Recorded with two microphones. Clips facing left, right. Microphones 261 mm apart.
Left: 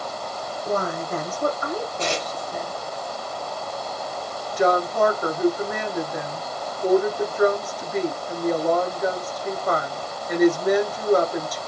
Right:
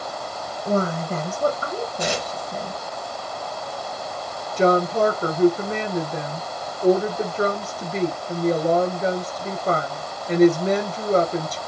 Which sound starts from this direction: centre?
Tearing paper, at 2.0 s.